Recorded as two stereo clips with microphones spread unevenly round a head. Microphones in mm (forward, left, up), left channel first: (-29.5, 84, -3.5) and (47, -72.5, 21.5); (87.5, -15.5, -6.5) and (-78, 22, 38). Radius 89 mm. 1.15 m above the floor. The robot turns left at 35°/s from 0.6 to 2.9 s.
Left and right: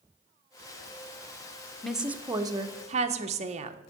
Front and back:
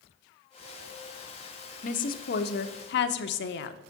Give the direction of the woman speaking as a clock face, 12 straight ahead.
11 o'clock.